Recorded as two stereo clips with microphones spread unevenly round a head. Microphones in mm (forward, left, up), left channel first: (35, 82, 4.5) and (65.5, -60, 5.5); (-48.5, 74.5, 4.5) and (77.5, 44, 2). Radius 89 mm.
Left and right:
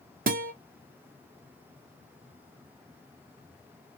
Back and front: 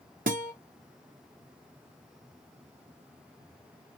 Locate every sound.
0.3 s a guitar: 55° right, 0.8 m